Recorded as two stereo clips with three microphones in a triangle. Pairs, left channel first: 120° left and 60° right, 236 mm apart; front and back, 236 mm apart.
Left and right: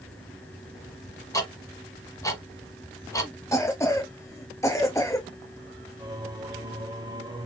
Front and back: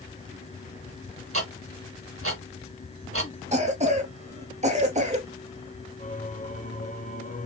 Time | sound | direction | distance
1.3 | ticking | 165° right | 1.5 m
3.5 | a cough | 175° right | 0.9 m
6.0 | singing | 5° right | 1.0 m